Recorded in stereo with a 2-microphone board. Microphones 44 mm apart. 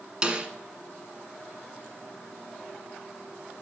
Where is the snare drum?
20° right (ahead or behind), 1.4 m.